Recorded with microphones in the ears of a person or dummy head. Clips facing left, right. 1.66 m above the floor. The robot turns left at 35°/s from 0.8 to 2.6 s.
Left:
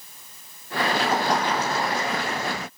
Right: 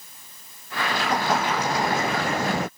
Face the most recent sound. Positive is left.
turn(degrees=-45)